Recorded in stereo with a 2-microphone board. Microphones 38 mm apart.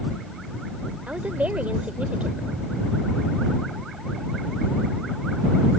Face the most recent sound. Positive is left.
turn(degrees=-80)